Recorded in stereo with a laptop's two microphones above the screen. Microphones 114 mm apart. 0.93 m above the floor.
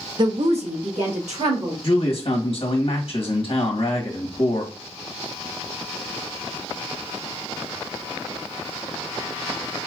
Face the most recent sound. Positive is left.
turn(degrees=55)  # may be behind; listen again after turning